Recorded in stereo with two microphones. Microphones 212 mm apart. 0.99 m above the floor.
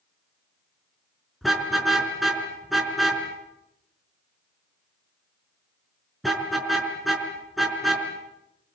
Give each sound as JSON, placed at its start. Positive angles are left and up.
{"t": 1.4, "sound": "a car horn", "side_deg": 0, "distance_m": 5.0}